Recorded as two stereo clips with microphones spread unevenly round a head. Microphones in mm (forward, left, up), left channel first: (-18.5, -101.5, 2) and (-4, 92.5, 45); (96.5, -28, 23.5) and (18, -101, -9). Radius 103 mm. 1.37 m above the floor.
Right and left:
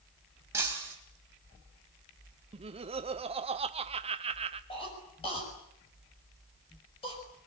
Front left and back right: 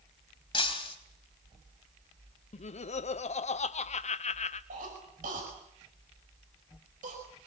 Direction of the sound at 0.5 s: 10° left.